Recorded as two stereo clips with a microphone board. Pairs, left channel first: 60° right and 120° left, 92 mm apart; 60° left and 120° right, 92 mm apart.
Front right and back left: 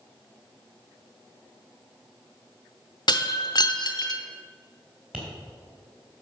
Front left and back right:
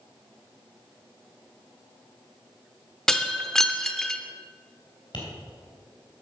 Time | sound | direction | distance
3.1 | breaking glass | 25° right | 0.7 m
5.1 | tapping | 45° left | 3 m